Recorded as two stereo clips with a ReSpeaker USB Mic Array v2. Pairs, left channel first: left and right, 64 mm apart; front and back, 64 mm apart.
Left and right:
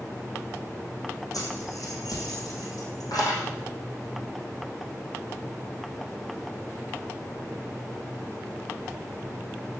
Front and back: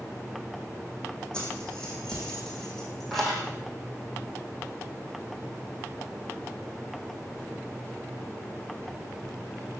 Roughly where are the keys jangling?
Left.